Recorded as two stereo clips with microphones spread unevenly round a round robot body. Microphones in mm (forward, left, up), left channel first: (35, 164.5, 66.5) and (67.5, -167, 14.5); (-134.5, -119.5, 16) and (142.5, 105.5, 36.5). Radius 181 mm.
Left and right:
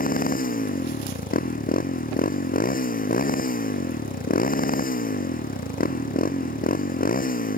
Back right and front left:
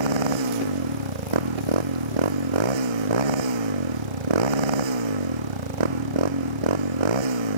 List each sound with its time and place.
0.0 s a motorcycle: 30° left